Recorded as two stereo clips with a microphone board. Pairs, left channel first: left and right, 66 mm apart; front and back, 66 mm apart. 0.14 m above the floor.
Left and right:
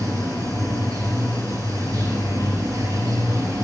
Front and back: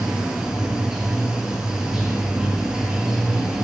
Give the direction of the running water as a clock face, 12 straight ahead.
3 o'clock.